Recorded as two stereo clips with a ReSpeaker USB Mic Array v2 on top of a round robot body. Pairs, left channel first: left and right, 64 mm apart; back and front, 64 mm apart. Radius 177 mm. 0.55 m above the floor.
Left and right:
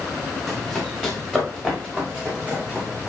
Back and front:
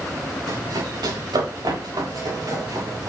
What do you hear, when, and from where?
0.5 s running footsteps: 5° right, 6.5 m; by 3.1 s 15° right, 9 m